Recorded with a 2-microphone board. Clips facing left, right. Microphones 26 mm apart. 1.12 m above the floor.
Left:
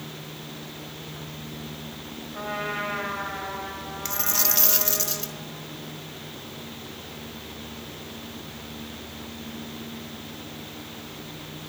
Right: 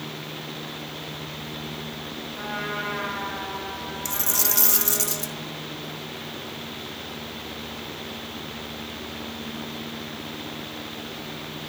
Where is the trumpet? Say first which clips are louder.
Left 1 dB; 65° left (ahead or behind), 6 m.